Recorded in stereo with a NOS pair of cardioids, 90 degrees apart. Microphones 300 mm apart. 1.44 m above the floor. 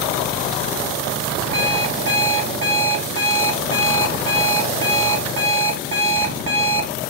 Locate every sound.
1.5 s an alarm clock: 60° right, 1.9 m